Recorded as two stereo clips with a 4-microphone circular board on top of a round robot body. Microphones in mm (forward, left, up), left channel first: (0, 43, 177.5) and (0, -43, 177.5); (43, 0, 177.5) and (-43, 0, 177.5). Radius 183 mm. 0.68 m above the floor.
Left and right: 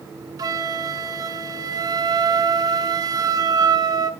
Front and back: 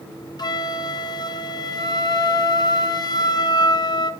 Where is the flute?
45° right, 0.9 m.